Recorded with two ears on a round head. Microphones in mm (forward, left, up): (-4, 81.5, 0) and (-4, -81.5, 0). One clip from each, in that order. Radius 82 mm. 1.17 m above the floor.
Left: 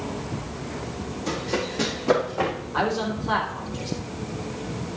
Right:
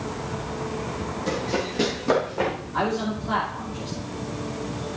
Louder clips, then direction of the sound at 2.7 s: Left 2 dB; 30° left (ahead or behind).